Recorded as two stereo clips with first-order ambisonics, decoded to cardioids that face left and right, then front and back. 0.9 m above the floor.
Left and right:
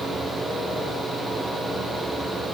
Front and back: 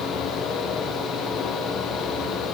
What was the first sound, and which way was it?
Only background noise.